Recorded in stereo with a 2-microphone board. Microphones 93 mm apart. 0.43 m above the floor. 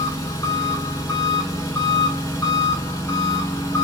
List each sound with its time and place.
0.0 s an engine running: 40° left (ahead or behind), 1.0 m